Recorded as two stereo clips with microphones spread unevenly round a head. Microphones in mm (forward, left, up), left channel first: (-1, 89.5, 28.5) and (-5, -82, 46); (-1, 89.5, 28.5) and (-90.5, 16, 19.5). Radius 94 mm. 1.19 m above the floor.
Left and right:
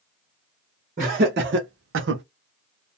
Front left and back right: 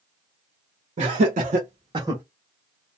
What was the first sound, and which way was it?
Laughter, 140° right.